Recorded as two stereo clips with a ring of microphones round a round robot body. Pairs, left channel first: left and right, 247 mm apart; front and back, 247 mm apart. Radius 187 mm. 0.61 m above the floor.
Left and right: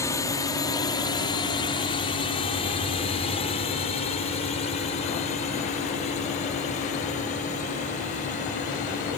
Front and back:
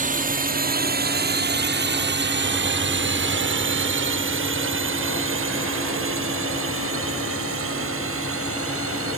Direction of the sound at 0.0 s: 160° left.